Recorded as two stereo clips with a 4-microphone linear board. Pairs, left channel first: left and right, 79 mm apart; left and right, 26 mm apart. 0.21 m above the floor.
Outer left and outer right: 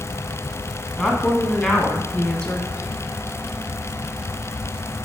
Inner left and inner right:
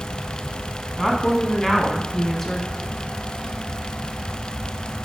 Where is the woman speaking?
10° left (ahead or behind), 1.5 m.